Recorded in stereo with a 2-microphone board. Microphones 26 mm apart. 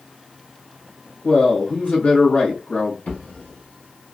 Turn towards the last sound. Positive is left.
turn(degrees=85)